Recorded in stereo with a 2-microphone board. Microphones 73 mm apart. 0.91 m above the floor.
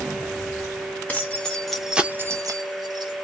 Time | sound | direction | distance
1.1 | keys jangling | 20° left (ahead or behind) | 1.0 m